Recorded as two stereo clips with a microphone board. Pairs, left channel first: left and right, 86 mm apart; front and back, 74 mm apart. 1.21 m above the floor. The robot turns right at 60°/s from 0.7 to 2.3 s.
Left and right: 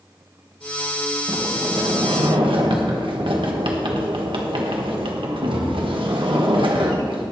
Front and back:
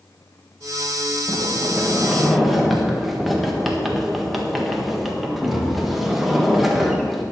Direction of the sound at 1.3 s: 155° right.